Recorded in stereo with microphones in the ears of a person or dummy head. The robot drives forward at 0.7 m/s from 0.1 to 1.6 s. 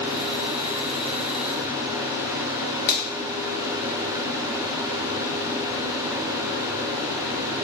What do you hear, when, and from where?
2.9 s a finger snap: 50° left (ahead or behind), 0.8 m